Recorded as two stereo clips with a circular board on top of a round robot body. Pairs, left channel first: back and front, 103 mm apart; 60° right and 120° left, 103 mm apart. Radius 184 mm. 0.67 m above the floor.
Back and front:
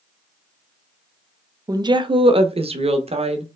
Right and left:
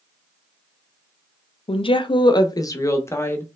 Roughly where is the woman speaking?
Ahead right.